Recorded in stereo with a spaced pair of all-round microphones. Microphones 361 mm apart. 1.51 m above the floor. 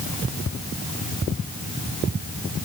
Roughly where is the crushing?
I don't hear crushing.